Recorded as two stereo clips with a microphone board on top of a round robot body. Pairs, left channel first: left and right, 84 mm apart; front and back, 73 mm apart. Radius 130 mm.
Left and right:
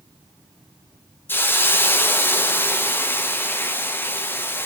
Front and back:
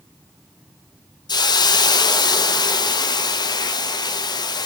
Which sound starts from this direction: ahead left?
A hiss, at 1.3 s.